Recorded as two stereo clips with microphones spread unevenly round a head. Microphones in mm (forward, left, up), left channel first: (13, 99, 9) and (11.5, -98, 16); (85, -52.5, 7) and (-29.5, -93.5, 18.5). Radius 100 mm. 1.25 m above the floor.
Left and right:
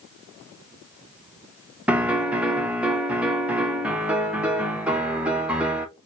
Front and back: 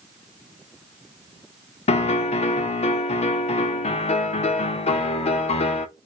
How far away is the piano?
About 0.6 m.